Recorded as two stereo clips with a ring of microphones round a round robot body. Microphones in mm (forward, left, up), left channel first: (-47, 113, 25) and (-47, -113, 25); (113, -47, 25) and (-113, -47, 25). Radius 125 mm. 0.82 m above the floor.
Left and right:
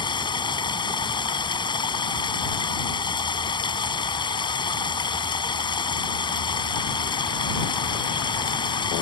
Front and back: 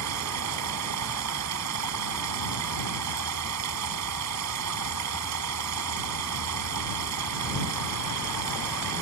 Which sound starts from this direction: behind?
Running water, at 0.0 s.